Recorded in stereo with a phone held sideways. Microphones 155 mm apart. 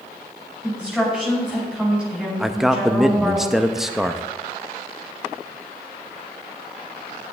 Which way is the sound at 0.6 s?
5° right (ahead or behind).